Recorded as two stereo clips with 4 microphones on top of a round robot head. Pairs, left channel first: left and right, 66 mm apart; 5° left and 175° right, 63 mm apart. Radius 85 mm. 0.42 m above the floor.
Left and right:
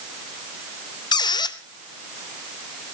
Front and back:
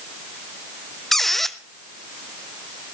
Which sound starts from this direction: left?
A squeak, at 1.1 s.